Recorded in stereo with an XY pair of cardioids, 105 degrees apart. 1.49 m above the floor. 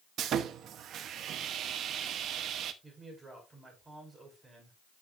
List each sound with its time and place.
0.2 s sawing: 70° right, 0.9 m
2.8 s a man speaking: 25° right, 5 m